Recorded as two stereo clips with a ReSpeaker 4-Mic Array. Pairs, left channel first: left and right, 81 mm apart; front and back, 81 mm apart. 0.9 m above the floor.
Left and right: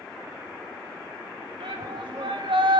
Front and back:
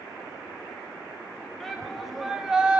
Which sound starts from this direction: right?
A shout, at 1.6 s.